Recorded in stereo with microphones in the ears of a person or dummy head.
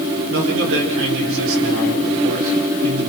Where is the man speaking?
70° right (ahead or behind), 6.5 m.